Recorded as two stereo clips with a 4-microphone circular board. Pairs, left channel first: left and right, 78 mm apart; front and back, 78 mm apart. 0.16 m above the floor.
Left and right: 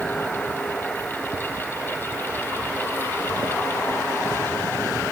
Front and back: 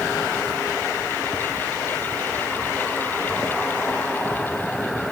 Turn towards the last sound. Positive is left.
No sound to turn to.